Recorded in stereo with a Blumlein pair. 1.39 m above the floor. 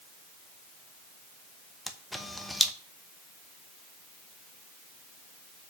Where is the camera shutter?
5° left, 1.1 m.